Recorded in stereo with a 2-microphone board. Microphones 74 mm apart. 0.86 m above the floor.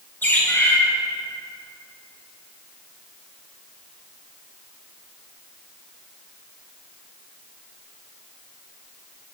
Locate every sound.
0.2 s a bird: 30° left (ahead or behind), 1.5 m